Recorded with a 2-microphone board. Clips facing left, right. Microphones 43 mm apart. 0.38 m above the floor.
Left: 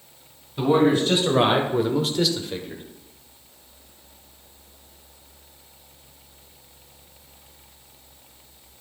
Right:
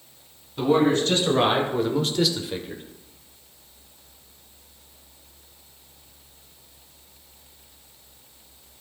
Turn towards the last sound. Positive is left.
turn(degrees=-10)  # may be behind; listen again after turning